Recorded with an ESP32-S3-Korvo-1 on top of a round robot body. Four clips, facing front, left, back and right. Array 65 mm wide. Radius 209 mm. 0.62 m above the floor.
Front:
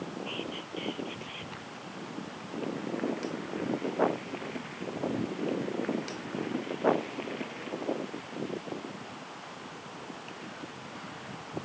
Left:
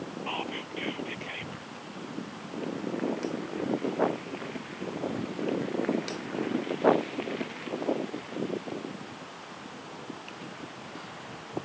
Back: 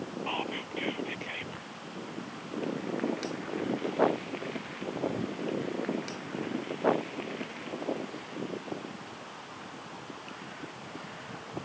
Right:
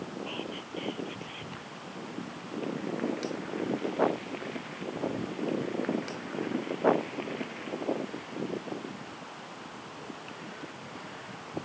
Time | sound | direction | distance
0.3 | whispering | 145° left | ?